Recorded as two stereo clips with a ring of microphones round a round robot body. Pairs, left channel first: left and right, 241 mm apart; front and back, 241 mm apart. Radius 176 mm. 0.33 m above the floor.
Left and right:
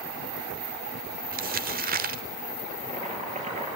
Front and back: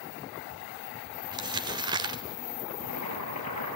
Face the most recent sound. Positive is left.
turn(degrees=-25)